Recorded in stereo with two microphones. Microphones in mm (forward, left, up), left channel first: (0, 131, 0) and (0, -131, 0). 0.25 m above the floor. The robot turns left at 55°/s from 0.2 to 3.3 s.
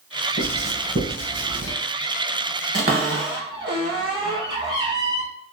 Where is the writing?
5° right (ahead or behind), 1.9 m; by 1.7 s 35° right (ahead or behind), 1.9 m.